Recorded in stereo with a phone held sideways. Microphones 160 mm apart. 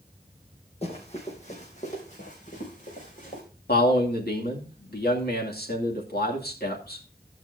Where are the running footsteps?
40° left (ahead or behind), 3.5 m; by 3.4 s 55° left (ahead or behind), 5 m.